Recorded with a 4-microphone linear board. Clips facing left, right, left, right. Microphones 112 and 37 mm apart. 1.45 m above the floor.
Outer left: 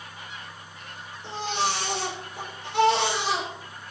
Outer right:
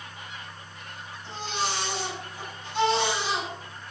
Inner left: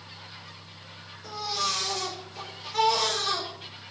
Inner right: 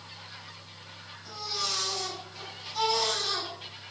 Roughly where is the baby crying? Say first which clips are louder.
Outer left 4 dB, inner left 5 dB; left.